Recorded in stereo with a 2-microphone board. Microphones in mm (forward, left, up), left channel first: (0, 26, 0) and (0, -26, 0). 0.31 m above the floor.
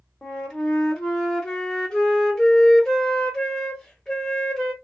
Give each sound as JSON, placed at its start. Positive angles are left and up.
{"t": 0.2, "sound": "a flute", "side_deg": 15, "distance_m": 0.8}